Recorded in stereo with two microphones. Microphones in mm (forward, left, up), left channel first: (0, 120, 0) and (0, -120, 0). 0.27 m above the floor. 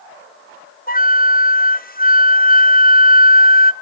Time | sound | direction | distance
0.9 | a flute | 40° left (ahead or behind) | 0.7 m